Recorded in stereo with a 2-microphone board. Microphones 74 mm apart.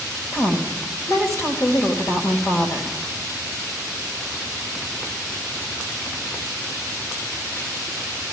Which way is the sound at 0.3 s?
45° left (ahead or behind).